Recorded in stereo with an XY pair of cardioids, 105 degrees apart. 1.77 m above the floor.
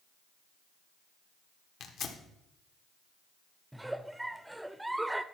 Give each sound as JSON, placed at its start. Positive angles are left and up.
{"t": 1.8, "sound": "tearing paper", "azimuth_deg": 65, "distance_m": 1.4}
{"t": 3.7, "sound": "a giggle", "azimuth_deg": -5, "distance_m": 0.6}